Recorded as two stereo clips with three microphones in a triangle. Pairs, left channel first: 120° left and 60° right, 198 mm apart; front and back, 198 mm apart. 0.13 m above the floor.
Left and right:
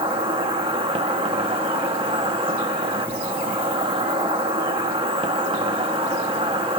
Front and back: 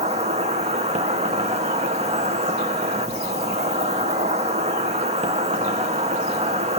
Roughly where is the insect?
Behind right.